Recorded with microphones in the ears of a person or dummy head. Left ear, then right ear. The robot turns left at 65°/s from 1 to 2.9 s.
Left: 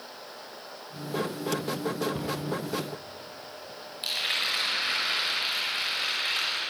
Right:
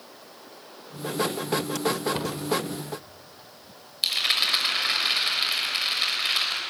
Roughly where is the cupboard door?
Right.